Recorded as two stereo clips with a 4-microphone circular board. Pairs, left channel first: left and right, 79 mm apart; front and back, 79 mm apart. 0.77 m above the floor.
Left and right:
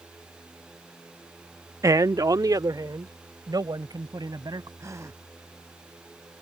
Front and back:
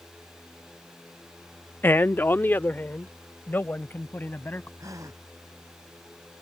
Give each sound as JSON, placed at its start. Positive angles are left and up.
{"t": 1.8, "sound": "a man speaking", "azimuth_deg": -60}
{"t": 4.8, "sound": "a gasp", "azimuth_deg": -140}